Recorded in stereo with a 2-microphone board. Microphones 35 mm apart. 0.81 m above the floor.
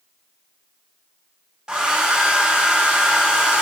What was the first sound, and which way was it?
A hair dryer, 25° right (ahead or behind).